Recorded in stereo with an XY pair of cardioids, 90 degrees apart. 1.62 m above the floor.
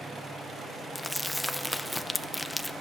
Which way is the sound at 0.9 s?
10° left.